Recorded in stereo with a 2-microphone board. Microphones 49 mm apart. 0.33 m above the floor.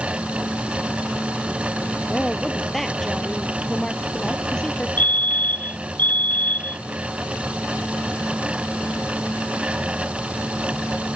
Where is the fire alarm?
35° left (ahead or behind).